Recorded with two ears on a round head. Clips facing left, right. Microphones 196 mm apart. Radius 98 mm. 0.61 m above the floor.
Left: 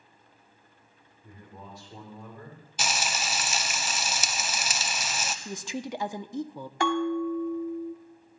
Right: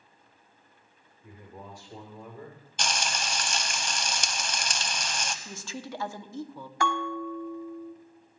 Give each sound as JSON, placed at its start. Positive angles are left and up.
{"t": 1.2, "sound": "a man speaking", "side_deg": -15, "distance_m": 2.0}
{"t": 2.8, "sound": "frying", "side_deg": 5, "distance_m": 0.6}
{"t": 5.5, "sound": "a woman speaking", "side_deg": 15, "distance_m": 0.6}
{"t": 6.8, "sound": "a bell", "side_deg": 25, "distance_m": 1.6}